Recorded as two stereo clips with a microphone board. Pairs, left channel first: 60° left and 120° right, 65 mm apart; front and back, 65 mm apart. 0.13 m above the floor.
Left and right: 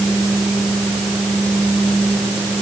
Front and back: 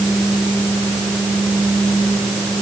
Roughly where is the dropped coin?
I don't hear a dropped coin.